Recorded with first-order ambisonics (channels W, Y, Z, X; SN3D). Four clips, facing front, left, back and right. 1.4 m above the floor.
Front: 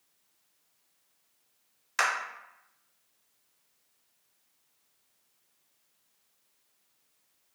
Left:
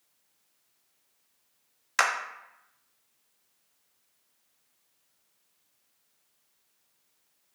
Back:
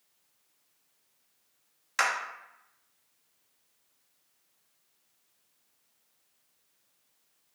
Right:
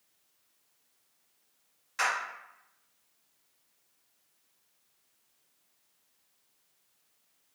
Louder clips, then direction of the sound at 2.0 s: Left 4 dB, even; 90° left.